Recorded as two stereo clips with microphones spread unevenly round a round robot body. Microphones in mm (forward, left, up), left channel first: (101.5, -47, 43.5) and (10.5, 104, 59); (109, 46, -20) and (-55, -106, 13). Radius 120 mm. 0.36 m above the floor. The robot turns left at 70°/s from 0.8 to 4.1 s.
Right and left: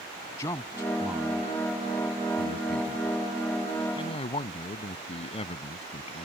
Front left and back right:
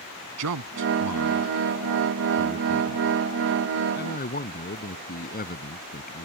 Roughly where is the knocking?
No knocking in this recording.